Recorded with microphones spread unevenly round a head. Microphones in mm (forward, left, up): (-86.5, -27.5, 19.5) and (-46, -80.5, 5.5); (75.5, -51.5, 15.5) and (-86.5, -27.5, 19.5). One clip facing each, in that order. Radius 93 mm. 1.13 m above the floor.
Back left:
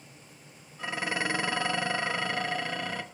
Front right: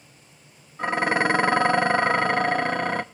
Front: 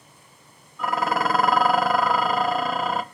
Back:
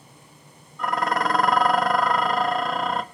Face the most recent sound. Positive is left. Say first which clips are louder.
# front right 9 dB, even
turn(degrees=-95)